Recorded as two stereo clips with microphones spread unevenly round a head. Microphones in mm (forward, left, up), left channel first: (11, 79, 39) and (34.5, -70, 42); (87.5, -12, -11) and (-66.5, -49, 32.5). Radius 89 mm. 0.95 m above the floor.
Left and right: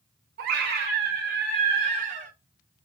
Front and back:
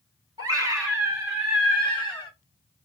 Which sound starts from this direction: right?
A scream, at 0.4 s.